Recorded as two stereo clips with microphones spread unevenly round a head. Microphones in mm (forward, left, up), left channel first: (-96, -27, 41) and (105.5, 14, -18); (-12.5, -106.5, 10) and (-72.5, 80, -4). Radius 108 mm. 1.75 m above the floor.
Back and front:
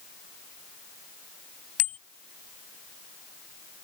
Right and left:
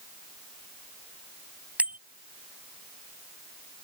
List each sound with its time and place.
1.8 s a bicycle bell: 170° right